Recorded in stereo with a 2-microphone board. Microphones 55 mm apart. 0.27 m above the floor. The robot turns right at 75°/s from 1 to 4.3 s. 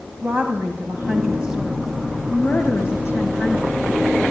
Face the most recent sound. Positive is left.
turn(degrees=-170)